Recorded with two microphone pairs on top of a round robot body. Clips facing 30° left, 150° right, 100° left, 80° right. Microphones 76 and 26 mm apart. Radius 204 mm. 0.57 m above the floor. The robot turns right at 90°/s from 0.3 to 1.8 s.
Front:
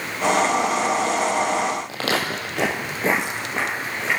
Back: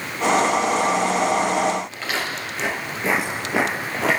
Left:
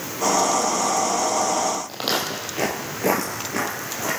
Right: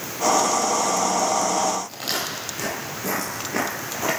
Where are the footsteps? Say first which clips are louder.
Front 3 dB, left 3 dB; 45° left, 1.3 m; by 4.2 s 145° right, 1.1 m.